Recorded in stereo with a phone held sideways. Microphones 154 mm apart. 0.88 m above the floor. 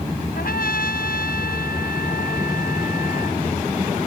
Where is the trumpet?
80° left.